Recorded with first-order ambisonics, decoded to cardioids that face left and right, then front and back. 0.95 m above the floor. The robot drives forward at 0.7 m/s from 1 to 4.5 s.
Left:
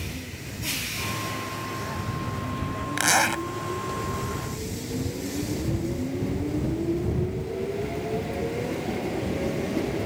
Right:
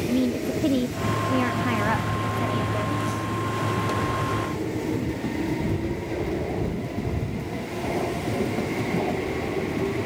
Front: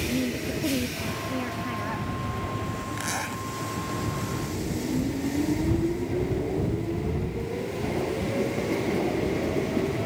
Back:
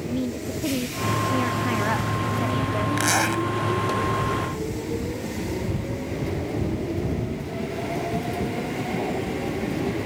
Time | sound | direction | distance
0.1 | a woman speaking | 95° right | ?
3.0 | a zipper | 120° left | ?